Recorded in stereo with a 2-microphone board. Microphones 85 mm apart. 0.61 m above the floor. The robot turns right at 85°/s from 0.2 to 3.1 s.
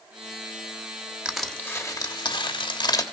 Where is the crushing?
15° right, 1.1 m; by 3.0 s 140° left, 1.1 m.